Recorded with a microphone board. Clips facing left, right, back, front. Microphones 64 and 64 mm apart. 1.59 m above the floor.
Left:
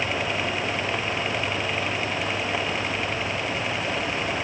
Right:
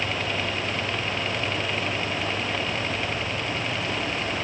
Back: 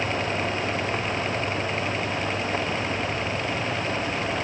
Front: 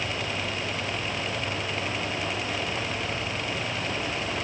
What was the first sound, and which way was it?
Only background noise.